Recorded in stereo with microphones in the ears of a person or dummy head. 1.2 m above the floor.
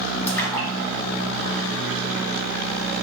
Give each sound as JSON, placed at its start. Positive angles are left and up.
{"t": 0.3, "sound": "a splash", "side_deg": 20, "distance_m": 1.0}